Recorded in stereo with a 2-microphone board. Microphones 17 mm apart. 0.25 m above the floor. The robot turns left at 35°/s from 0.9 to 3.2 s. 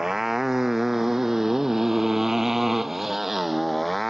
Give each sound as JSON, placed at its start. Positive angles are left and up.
{"t": 0.0, "sound": "a motorcycle", "side_deg": -30}